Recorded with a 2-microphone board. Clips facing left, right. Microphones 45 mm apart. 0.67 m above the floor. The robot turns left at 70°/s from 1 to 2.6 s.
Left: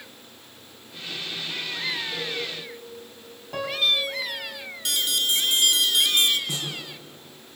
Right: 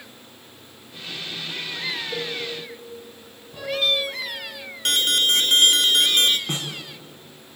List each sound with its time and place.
2.1 s a cowbell: 50° right (ahead or behind), 7 m; by 2.4 s 65° right (ahead or behind), 7 m
3.5 s a piano: 80° left, 4.5 m
4.8 s an alarm: 50° right (ahead or behind), 1.2 m
6.5 s a snare drum: 45° right (ahead or behind), 5 m